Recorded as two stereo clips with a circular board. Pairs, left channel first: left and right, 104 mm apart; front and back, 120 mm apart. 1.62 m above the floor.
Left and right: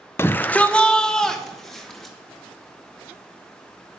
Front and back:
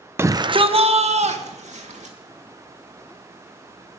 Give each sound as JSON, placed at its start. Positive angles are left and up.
{"t": 0.2, "sound": "a shout", "azimuth_deg": 130, "distance_m": 0.6}